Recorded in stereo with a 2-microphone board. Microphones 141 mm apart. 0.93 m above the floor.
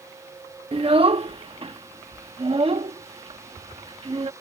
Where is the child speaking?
40° right (ahead or behind).